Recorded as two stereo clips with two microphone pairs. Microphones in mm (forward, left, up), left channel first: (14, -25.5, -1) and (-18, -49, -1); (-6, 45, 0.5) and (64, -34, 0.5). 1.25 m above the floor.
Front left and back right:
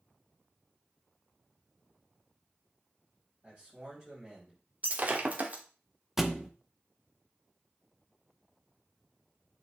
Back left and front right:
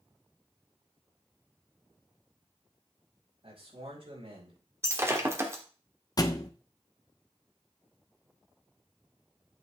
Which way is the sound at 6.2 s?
145° left.